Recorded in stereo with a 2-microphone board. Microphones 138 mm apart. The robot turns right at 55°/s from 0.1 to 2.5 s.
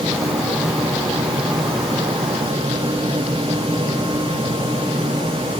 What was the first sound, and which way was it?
Only background noise.